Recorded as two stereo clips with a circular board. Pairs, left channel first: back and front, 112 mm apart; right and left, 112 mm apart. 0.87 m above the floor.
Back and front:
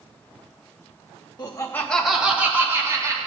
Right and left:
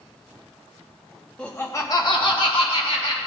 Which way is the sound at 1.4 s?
165° right.